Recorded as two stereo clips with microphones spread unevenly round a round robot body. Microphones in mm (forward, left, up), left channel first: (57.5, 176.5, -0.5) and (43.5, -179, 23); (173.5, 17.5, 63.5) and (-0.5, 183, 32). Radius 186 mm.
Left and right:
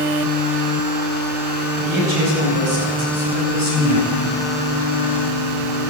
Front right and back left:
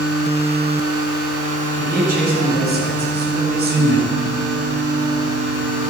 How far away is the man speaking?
About 7.5 m.